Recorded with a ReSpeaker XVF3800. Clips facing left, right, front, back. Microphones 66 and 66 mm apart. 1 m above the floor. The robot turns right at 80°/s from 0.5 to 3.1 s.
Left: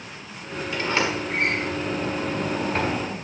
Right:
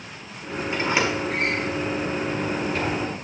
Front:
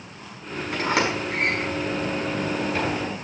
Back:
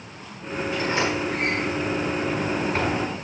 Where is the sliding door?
35° right, 5 m; by 3.1 s 155° left, 5 m.